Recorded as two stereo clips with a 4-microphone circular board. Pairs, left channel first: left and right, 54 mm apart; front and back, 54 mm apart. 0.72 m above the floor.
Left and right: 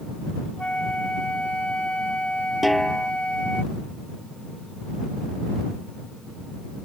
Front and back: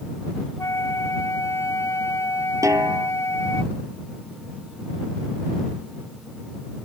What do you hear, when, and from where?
0.6 s a flute: 25° left
2.6 s a snare drum: straight behind